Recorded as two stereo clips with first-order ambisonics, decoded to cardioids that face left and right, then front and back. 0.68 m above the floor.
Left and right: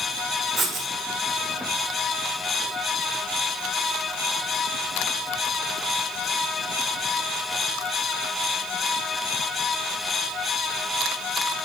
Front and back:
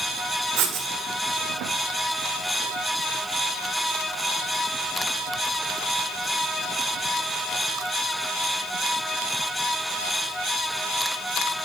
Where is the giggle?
No giggle in this recording.